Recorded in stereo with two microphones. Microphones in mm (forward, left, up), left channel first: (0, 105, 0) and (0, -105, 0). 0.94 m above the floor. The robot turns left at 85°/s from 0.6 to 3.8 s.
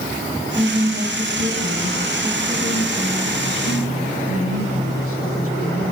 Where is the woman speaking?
5° right, 6.5 m; by 5.9 s 85° left, 6.5 m.